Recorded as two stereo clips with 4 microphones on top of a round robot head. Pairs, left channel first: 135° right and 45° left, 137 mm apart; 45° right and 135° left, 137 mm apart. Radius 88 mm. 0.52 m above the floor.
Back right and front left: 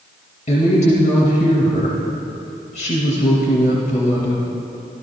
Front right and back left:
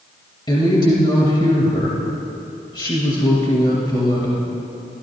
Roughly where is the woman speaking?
Right.